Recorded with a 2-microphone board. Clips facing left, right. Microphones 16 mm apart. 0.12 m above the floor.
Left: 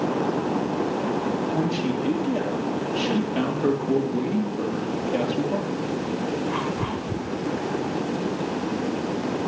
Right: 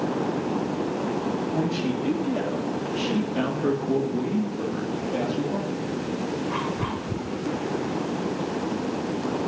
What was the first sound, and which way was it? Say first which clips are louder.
A man speaking: left 1 dB; 15° left (ahead or behind).